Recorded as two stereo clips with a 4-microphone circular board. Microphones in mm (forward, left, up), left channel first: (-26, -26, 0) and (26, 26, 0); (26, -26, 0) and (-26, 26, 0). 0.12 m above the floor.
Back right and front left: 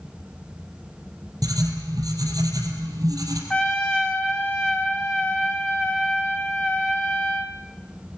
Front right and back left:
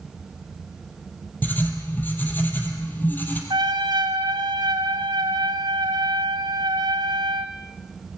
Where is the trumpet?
145° left, 1.8 m.